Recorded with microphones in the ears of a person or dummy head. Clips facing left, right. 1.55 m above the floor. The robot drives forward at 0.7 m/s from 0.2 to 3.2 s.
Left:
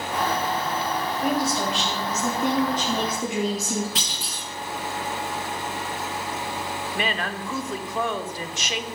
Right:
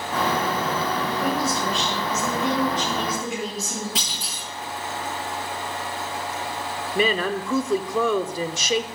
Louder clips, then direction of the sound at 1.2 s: Left 2 dB; 65° left (ahead or behind).